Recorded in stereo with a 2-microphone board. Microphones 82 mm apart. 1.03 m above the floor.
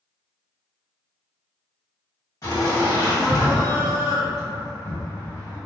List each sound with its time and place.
2.4 s laughter: 45° left (ahead or behind), 1.4 m